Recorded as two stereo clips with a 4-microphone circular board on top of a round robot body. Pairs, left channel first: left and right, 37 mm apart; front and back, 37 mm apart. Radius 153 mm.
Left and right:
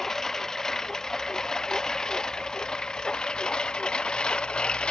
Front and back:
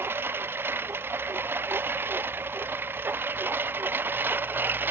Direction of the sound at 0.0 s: 170° left.